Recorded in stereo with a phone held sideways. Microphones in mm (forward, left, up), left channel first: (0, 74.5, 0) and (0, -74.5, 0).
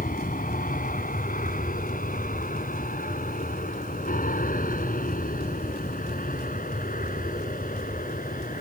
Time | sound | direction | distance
0.0 | an aircraft | 60° left (ahead or behind) | ?